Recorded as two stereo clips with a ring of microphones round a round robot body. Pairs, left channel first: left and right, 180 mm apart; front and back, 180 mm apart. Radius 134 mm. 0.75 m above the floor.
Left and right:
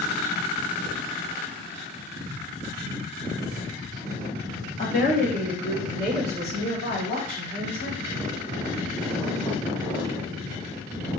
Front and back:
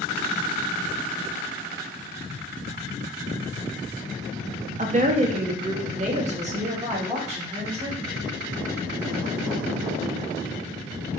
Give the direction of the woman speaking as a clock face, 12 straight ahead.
7 o'clock.